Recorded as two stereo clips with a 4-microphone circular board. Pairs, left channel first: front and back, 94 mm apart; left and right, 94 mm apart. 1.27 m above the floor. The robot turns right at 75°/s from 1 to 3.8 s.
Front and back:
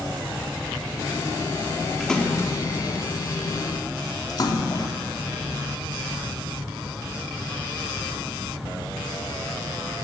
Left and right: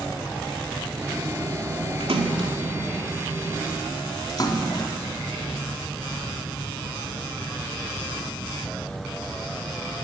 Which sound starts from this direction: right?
A splash, at 2.0 s.